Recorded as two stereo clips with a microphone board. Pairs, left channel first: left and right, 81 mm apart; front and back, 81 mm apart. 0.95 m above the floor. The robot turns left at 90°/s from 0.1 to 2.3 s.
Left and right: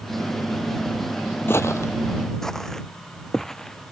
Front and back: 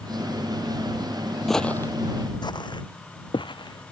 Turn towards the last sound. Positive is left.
turn(degrees=5)